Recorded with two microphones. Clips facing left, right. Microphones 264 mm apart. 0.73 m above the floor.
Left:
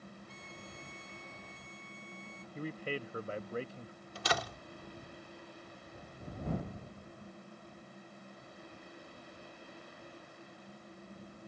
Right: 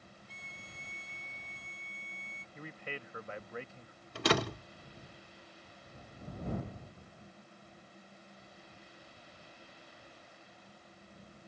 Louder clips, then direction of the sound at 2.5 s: Left 7 dB; 35° left (ahead or behind).